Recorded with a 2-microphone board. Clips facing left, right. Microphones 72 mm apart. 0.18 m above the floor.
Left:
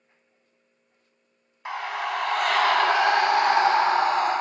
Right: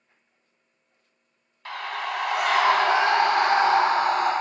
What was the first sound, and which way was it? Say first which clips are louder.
A scream: left 2 dB; 15° left (ahead or behind).